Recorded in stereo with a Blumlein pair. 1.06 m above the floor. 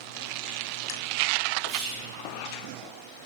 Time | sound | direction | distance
1.7 | whispering | 40° right | 1.6 m